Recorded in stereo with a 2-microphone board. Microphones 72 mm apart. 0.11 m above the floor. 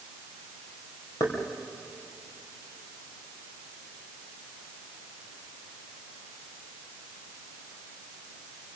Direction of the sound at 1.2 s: 55° left (ahead or behind).